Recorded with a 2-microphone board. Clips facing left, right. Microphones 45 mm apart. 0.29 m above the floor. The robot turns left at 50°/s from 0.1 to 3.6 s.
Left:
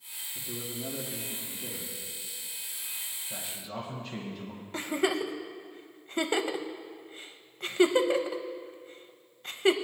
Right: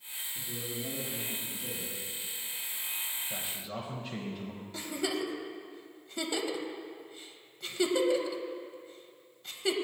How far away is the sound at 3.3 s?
About 1.3 m.